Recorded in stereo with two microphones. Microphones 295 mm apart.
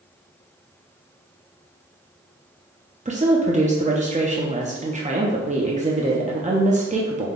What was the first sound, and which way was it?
A woman speaking, 25° right (ahead or behind).